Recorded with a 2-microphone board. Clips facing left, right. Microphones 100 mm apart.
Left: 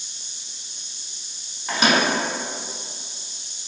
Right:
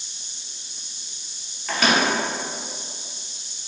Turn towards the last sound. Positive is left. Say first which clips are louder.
# left 1 dB
turn(degrees=20)  # may be behind; listen again after turning